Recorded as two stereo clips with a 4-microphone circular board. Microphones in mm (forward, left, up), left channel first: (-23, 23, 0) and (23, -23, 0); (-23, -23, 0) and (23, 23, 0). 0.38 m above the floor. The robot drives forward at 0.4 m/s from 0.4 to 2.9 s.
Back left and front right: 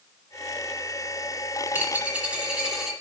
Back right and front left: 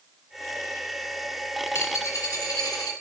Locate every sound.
1.7 s a dropped coin: 100° right, 1.0 m; by 2.9 s 125° right, 1.2 m